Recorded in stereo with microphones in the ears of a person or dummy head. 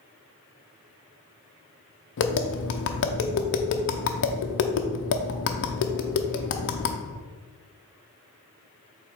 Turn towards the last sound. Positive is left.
turn(degrees=65)  # may be behind; listen again after turning